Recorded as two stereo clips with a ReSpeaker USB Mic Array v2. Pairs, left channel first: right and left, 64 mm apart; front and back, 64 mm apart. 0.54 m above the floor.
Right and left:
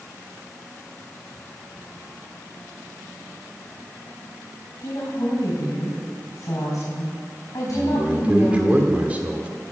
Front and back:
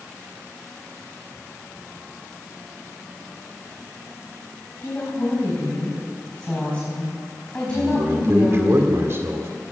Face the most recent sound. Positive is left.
turn(degrees=150)